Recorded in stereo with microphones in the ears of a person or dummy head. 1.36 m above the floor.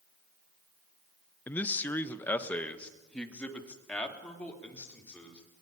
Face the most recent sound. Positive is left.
turn(degrees=10)  # may be behind; listen again after turning